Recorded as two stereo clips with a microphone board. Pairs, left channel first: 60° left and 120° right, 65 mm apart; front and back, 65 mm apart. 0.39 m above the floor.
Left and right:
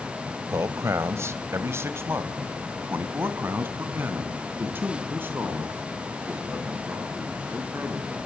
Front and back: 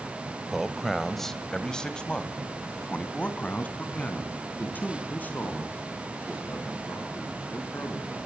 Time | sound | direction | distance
0.5 | a man speaking | 95° right | 1.5 m